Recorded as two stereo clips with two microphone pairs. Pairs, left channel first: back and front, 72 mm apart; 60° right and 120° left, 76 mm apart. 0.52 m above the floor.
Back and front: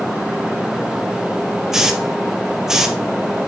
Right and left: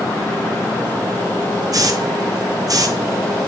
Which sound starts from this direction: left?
A hiss, at 1.7 s.